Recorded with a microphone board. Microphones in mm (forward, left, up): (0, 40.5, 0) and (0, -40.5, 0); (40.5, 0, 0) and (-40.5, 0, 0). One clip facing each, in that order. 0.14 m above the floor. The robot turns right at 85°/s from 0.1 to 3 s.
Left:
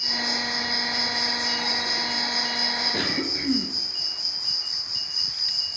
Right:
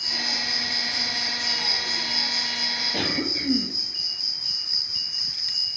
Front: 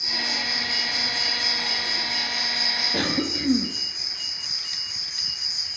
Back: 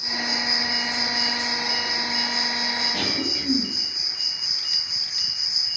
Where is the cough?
30° left, 2 m; by 3.7 s 35° left, 2 m.